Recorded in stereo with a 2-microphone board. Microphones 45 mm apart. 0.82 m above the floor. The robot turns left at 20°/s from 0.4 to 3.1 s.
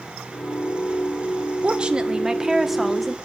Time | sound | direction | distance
1.6 | a woman speaking | 25° right (ahead or behind) | 1.4 m